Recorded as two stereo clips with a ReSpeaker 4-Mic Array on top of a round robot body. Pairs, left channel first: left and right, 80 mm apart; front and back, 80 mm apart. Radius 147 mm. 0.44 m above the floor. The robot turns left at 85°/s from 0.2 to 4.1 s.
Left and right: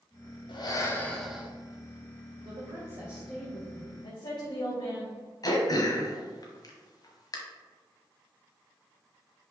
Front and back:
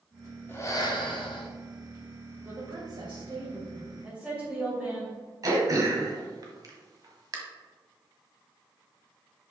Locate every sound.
0.5 s breathing: 65° left, 1.3 m; by 1.5 s 20° right, 1.3 m
2.5 s a woman speaking: 115° right, 2.5 m; by 5.1 s 105° left, 2.5 m
5.4 s throat clearing: 135° left, 1.3 m